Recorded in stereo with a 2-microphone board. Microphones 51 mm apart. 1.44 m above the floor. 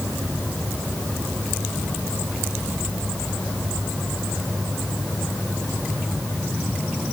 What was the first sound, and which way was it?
Only background noise.